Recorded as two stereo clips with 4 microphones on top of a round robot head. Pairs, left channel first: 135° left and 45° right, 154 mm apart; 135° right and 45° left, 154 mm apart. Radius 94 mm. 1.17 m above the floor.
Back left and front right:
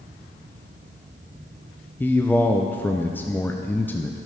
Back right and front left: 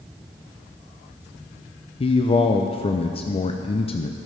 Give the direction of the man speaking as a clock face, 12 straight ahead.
5 o'clock.